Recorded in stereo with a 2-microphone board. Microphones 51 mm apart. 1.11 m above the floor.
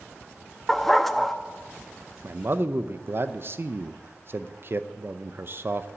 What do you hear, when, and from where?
0.7 s a dog barking: 5° left (ahead or behind), 0.5 m
2.2 s a man speaking: 45° right (ahead or behind), 0.6 m